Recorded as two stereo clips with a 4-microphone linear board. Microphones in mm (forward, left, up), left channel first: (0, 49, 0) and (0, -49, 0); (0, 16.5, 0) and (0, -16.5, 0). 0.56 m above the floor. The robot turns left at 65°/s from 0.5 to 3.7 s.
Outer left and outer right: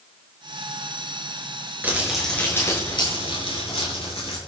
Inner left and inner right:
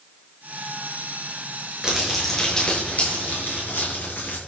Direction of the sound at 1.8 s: 160° right.